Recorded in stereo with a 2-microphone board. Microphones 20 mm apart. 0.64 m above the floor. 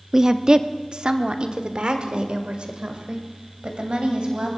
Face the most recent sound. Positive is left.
turn(degrees=-50)  # may be behind; listen again after turning